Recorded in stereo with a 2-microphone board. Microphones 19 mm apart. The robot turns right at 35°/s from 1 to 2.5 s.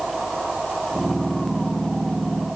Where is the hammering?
I don't hear hammering.